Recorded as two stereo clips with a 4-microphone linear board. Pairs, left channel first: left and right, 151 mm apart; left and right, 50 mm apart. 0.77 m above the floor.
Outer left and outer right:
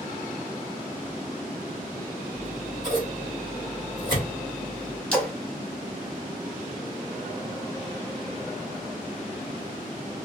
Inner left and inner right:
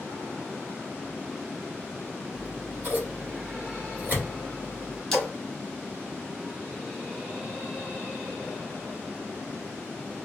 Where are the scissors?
30° right (ahead or behind), 1.5 m.